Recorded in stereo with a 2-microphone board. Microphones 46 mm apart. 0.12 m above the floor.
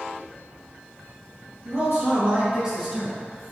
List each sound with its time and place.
1.6 s a man speaking: 50° right (ahead or behind), 1.8 m; by 3.2 s 5° left (ahead or behind), 1.3 m